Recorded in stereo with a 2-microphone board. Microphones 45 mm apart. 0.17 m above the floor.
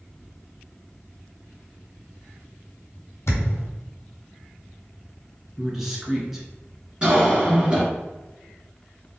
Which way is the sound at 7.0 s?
20° right (ahead or behind).